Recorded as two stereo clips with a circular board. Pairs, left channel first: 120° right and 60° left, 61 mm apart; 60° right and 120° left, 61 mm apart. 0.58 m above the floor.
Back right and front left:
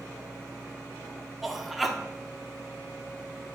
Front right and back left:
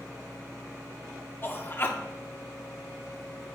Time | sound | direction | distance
1.4 | a man speaking | 30° right | 0.8 m